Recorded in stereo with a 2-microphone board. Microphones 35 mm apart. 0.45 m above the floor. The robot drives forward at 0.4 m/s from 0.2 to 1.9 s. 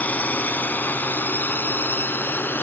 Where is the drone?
50° left (ahead or behind); by 2.6 s 75° left (ahead or behind).